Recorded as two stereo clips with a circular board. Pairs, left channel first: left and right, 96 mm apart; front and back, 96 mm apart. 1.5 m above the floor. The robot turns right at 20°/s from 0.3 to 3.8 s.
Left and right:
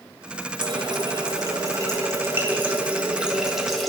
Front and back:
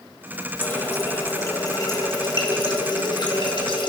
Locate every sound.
0.6 s a running tap: 65° right, 1.2 m; by 3.9 s straight ahead, 1.2 m